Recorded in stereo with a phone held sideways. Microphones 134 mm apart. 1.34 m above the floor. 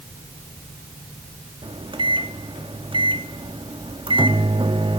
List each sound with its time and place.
1.6 s a microwave: 40° right (ahead or behind), 1.6 m